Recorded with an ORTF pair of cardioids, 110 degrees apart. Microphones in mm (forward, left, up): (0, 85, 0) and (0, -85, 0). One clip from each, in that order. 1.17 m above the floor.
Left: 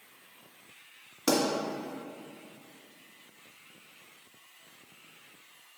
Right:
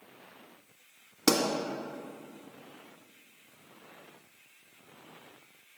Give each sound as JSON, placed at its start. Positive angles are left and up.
{"t": 1.3, "sound": "a pop", "azimuth_deg": -35, "distance_m": 1.6}